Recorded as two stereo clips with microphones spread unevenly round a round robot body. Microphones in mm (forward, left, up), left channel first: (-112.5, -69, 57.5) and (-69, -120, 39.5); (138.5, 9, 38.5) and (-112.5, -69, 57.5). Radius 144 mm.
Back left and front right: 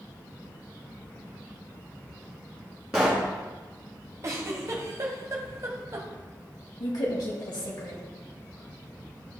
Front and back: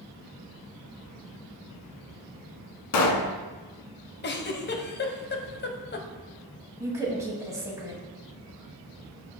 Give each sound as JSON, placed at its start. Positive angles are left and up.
{"t": 2.9, "sound": "a pop", "azimuth_deg": 35, "distance_m": 1.1}
{"t": 4.2, "sound": "a giggle", "azimuth_deg": -25, "distance_m": 1.1}
{"t": 6.8, "sound": "a woman speaking", "azimuth_deg": 115, "distance_m": 2.0}